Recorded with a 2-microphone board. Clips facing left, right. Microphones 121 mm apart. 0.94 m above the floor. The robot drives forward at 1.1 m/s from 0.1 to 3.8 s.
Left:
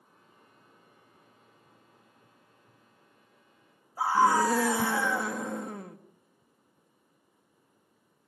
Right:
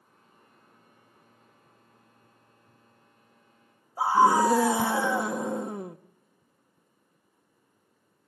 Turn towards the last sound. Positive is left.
turn(degrees=-20)  # may be behind; listen again after turning